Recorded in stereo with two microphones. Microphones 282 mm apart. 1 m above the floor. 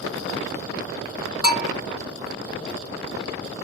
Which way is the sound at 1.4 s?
20° right (ahead or behind).